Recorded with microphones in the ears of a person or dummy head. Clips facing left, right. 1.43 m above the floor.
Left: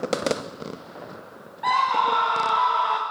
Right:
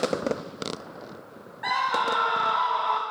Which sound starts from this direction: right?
A scream, at 1.6 s.